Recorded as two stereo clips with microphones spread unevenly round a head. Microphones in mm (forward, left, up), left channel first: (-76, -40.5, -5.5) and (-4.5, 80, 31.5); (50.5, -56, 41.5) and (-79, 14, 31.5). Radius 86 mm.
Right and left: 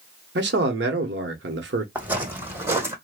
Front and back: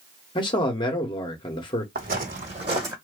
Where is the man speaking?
35° left, 0.9 m.